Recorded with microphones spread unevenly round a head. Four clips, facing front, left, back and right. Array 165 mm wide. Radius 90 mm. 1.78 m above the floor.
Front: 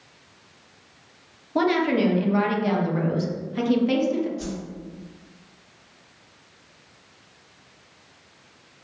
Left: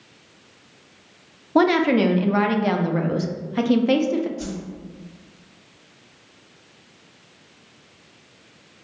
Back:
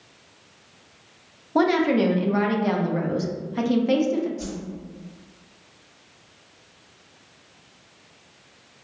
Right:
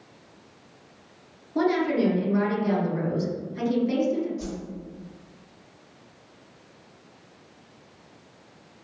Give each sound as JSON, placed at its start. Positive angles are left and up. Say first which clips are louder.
{"t": 1.6, "sound": "a woman speaking", "louder": "left 6 dB, back 2 dB", "azimuth_deg": 100, "distance_m": 0.5}
{"t": 4.4, "sound": "a whoosh", "louder": "left 3 dB, front 1 dB", "azimuth_deg": 105, "distance_m": 1.8}